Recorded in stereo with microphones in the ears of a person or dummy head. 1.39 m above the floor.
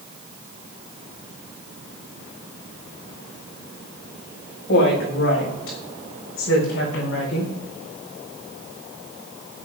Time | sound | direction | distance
4.7 | a woman speaking | 60° left (ahead or behind) | 7 m